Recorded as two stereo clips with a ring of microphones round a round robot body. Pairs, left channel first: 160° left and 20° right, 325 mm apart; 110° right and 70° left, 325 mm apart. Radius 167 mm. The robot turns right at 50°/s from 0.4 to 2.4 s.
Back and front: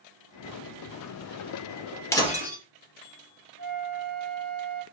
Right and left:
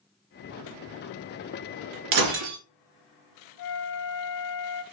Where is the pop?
No pop in this recording.